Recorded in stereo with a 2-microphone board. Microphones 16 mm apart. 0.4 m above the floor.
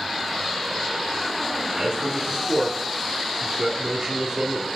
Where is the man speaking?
25° right (ahead or behind), 1.4 m.